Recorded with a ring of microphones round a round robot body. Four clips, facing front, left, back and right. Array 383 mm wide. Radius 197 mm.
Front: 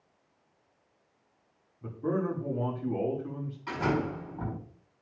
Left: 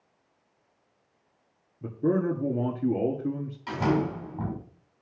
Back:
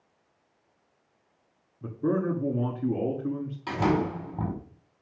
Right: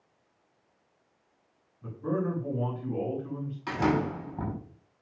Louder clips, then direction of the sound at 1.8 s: Left 5 dB, back 4 dB; 125° left.